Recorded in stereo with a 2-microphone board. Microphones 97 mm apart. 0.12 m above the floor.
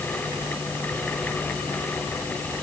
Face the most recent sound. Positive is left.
No sound to turn to.